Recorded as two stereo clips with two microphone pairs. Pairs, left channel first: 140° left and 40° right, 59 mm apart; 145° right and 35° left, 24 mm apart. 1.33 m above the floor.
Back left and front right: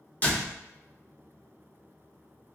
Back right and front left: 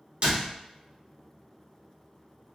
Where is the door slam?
80° left, 1.0 m.